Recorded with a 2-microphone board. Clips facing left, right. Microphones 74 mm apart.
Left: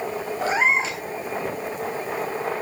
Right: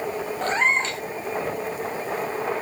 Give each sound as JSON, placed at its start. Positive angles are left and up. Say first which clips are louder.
{"t": 0.4, "sound": "a cat meowing", "louder": "left 1 dB", "side_deg": 5, "distance_m": 0.8}